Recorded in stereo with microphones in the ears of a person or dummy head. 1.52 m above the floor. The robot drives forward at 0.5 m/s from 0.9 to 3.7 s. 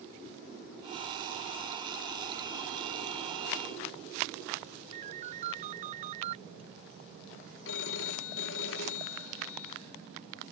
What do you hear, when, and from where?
4.9 s a ringtone: 40° right (ahead or behind)
7.7 s a phone ringing: 65° left (ahead or behind)